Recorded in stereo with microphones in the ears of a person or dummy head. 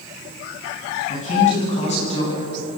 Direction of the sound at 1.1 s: 40° left (ahead or behind).